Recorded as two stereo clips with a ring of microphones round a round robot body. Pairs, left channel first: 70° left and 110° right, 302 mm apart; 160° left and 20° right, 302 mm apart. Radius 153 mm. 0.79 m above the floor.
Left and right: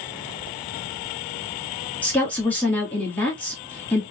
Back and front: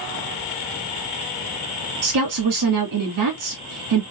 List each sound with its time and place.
2.0 s a woman speaking: 15° right, 2 m